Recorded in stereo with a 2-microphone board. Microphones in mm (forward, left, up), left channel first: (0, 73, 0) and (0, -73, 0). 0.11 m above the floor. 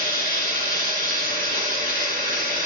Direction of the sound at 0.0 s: 80° left.